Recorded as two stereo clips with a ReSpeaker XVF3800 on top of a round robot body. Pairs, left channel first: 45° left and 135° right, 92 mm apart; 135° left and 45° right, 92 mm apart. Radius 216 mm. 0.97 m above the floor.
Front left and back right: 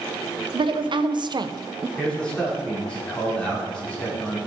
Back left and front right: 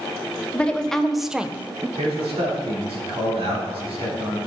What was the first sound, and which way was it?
A woman speaking, 145° right.